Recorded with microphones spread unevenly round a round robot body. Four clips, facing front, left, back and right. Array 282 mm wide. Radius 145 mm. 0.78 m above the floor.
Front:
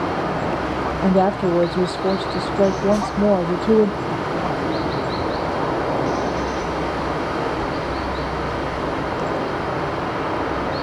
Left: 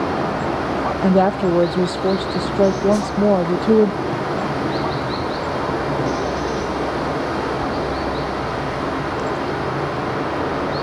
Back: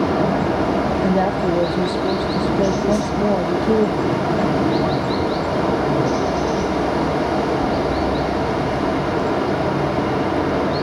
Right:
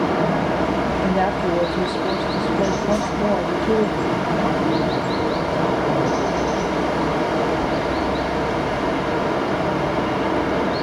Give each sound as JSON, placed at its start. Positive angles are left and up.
{"t": 0.0, "sound": "running water", "azimuth_deg": -165, "distance_m": 1.7}
{"t": 1.0, "sound": "a woman speaking", "azimuth_deg": 65, "distance_m": 0.5}
{"t": 2.9, "sound": "a whoosh", "azimuth_deg": 135, "distance_m": 3.0}